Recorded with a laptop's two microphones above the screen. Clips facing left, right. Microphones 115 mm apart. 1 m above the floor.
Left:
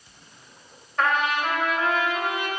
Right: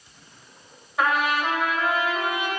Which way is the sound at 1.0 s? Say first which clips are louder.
Right 1 dB; 5° right (ahead or behind).